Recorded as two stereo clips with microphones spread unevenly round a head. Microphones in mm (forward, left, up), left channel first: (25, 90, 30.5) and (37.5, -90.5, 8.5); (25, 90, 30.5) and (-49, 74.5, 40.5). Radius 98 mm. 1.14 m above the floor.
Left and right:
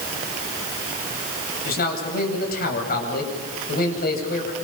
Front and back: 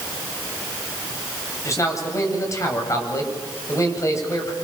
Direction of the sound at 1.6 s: 60° left.